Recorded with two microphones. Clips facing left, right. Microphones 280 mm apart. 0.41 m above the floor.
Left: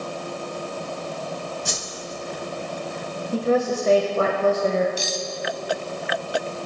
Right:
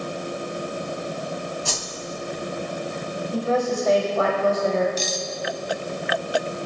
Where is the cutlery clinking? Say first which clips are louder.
Right 1 dB; 10° left (ahead or behind), 1.9 m.